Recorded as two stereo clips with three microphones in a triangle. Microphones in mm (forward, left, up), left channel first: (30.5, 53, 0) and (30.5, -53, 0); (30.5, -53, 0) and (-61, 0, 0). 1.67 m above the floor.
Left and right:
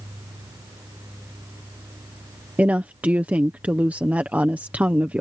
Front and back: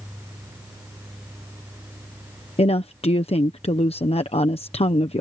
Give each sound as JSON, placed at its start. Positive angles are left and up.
{"t": 2.6, "sound": "a woman speaking", "azimuth_deg": -15}